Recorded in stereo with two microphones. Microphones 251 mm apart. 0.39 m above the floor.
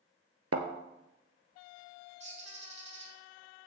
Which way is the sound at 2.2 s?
25° right (ahead or behind).